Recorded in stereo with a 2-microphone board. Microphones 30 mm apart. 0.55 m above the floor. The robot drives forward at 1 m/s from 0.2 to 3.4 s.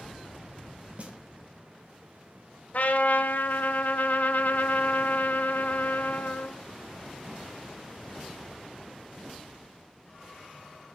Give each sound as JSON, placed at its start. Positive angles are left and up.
{"t": 1.0, "sound": "a snare drum", "side_deg": -40, "distance_m": 1.6}
{"t": 2.7, "sound": "a trumpet", "side_deg": 50, "distance_m": 1.0}